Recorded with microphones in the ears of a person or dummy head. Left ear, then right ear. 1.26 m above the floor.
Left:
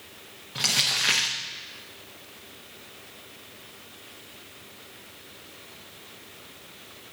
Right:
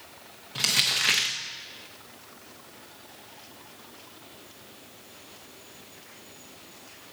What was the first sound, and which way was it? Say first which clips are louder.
Crumpling: even; 5° right (ahead or behind).